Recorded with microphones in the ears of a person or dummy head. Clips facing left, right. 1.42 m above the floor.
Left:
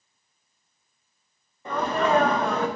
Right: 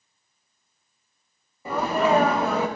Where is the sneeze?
10° right (ahead or behind), 0.7 m.